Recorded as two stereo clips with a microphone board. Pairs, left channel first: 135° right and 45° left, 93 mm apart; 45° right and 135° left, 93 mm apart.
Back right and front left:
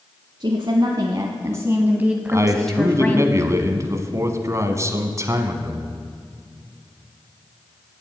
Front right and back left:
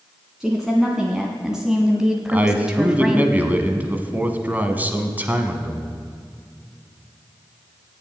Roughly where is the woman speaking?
Ahead left.